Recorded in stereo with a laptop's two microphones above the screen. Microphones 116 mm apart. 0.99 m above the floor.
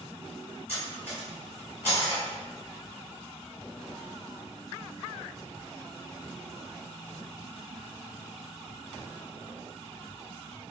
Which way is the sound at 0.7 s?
15° left (ahead or behind).